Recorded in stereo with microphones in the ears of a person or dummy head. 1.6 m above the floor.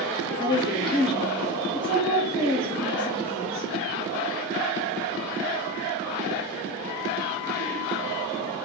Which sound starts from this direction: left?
A woman speaking, at 0.4 s.